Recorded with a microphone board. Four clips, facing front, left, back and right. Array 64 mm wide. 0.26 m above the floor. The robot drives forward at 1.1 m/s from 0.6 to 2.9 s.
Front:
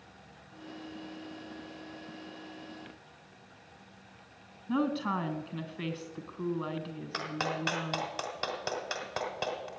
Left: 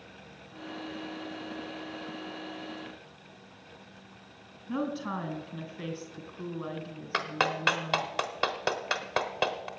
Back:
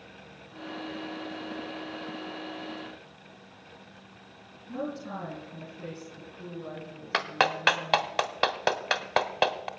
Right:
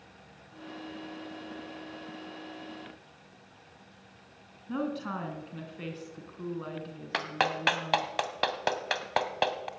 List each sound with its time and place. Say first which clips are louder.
4.7 s a woman speaking: left 1 dB, front 5 dB; 10° right, 2.5 m
7.1 s a clap: even, back 8 dB; 170° right, 1.1 m